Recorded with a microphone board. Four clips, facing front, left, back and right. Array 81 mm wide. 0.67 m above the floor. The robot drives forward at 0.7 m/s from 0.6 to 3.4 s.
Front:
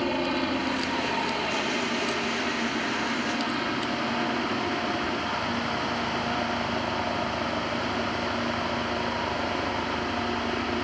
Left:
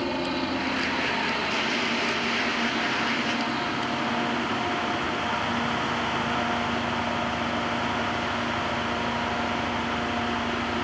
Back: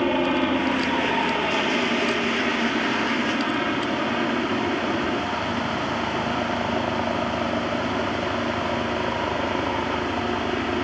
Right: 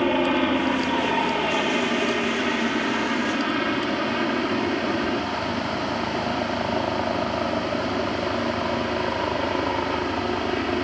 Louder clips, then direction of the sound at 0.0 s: Right 7 dB, back 5 dB; 125° right.